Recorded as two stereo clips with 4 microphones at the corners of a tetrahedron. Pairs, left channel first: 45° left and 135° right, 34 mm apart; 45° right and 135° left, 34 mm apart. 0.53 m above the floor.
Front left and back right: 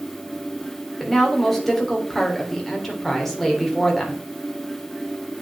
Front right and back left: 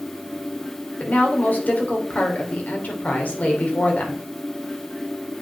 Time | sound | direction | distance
1.0 | a woman speaking | 40° right | 1.9 m